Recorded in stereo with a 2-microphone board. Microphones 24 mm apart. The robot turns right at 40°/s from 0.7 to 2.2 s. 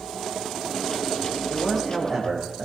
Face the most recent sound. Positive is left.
turn(degrees=-15)  # may be behind; listen again after turning